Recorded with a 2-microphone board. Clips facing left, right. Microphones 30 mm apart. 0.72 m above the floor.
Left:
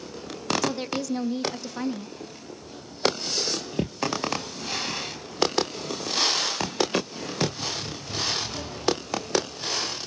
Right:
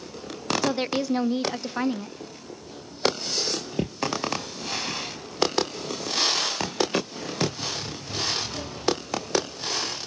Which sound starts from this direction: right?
A woman speaking, at 0.6 s.